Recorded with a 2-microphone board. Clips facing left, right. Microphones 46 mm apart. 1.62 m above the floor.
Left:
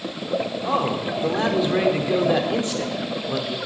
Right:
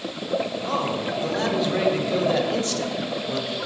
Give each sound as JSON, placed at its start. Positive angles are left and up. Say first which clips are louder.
{"t": 0.6, "sound": "a man speaking", "louder": "left 2 dB", "side_deg": 10, "distance_m": 0.8}